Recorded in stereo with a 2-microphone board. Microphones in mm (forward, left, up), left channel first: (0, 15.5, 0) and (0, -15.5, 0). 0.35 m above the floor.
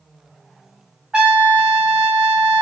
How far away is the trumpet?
About 1.8 m.